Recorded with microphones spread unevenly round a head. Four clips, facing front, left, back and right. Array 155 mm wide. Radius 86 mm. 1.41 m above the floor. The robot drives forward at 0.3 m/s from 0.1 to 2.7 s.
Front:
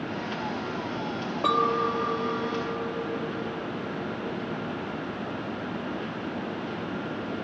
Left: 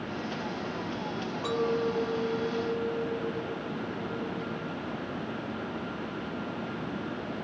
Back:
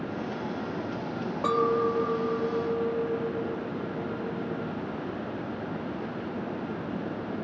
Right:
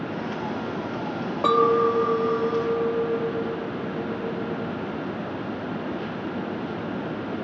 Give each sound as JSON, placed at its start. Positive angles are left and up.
{"t": 1.4, "sound": "a clink", "azimuth_deg": -80}